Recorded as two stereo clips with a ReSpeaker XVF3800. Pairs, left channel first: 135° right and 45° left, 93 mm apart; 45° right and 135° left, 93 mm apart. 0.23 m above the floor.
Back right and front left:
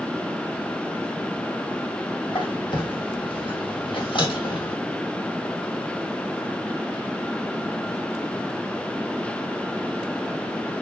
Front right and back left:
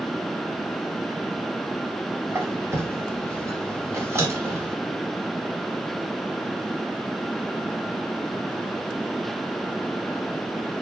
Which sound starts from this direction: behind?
A squeak, at 2.3 s.